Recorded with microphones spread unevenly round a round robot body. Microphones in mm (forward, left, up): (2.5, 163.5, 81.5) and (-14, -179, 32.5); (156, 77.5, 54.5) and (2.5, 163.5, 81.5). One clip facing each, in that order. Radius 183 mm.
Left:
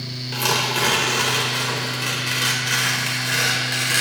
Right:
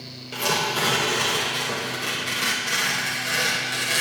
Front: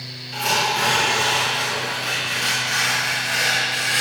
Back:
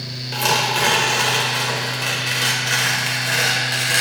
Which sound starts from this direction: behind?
Tearing paper, at 0.3 s.